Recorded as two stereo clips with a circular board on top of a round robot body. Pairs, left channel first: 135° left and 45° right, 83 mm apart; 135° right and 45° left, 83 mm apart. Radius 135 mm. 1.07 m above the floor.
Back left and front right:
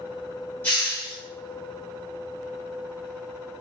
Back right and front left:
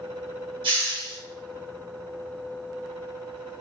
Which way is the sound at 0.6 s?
70° left.